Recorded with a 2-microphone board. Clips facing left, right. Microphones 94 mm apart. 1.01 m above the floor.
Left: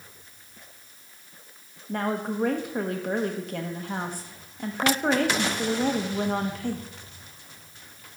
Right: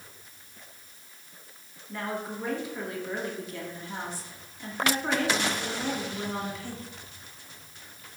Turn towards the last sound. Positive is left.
turn(degrees=55)  # may be behind; listen again after turning